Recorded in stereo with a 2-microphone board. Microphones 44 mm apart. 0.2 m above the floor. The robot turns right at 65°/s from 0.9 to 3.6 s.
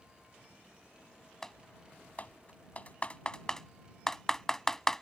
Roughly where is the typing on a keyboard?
Centre.